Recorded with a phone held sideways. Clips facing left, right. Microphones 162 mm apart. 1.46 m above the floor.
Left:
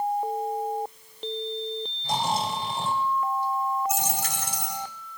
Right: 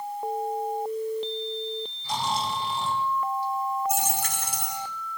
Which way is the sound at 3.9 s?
55° right (ahead or behind).